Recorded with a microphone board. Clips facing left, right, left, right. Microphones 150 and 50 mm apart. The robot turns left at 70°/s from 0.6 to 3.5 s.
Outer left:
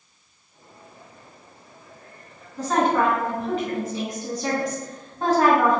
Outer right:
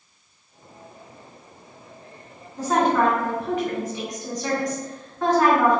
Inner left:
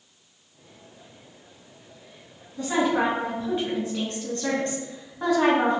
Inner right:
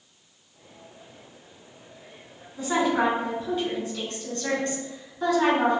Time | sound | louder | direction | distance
2.6 | a woman speaking | outer right 1 dB, even | 160° right | 1.5 m